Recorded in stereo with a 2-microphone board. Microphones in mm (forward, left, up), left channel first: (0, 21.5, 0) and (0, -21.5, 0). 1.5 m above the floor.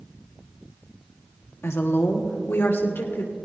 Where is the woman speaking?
75° left (ahead or behind), 1.3 m; by 3.5 s 60° left (ahead or behind), 3 m.